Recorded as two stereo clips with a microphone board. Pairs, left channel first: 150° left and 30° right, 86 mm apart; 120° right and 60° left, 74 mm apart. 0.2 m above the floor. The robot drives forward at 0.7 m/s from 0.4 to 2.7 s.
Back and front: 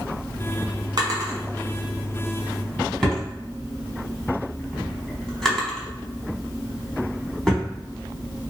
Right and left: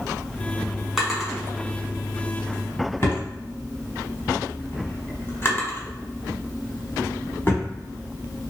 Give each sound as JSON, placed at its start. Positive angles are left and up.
{"t": 1.0, "sound": "a drawer", "azimuth_deg": -25, "distance_m": 1.2}